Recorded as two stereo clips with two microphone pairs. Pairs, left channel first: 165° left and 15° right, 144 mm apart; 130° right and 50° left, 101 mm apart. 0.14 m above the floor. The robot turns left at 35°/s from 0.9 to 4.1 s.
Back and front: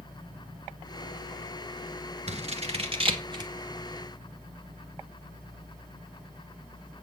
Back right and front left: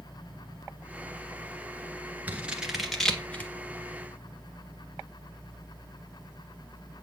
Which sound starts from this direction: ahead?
Scissors, at 2.3 s.